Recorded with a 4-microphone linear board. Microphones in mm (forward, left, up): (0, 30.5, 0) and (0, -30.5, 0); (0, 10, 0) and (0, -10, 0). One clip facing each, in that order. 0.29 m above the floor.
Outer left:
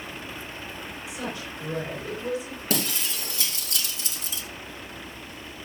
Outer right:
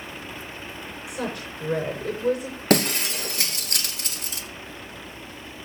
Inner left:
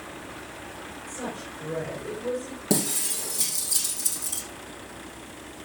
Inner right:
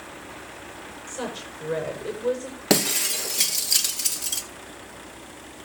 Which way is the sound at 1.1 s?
70° right (ahead or behind).